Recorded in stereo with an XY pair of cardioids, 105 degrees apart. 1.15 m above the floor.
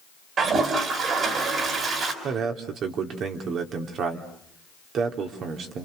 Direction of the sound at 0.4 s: 55° right.